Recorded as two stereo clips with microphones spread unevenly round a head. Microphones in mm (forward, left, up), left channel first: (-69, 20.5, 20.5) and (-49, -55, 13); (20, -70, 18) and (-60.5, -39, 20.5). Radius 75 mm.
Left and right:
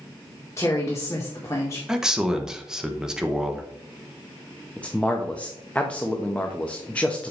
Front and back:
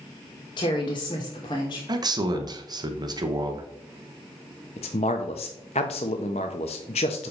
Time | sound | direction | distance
0.6 | a woman speaking | 35° left | 1.9 m
1.9 | a man speaking | 160° right | 1.1 m
4.8 | a man speaking | 25° left | 1.0 m